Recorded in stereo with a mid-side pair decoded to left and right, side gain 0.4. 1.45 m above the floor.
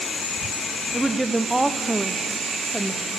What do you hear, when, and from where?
0.9 s a woman speaking: 20° right, 0.6 m